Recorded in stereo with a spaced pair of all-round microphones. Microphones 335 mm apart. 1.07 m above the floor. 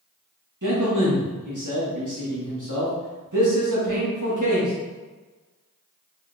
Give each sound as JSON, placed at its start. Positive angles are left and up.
{"t": 0.6, "sound": "a man speaking", "side_deg": -60, "distance_m": 1.6}